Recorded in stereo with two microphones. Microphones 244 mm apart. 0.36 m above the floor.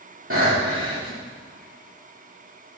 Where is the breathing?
65° right (ahead or behind), 4 m.